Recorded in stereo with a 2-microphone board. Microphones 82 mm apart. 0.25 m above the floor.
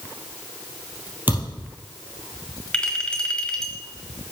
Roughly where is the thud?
Right.